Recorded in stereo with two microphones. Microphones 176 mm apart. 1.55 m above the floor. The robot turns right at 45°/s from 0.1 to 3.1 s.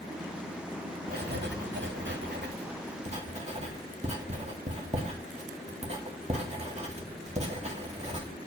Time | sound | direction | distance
1.1 | writing | 50° right (ahead or behind) | 2.5 m